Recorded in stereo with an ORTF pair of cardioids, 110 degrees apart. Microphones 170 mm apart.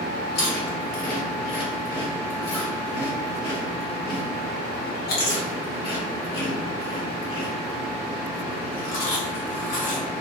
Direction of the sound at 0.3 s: 70° left.